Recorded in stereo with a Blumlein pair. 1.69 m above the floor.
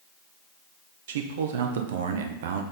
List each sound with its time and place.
1.1 s a man speaking: 55° right, 0.7 m